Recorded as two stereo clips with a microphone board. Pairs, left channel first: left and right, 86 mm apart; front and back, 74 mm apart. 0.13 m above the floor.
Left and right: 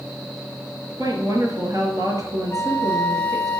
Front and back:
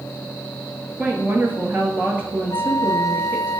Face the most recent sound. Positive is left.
turn(degrees=25)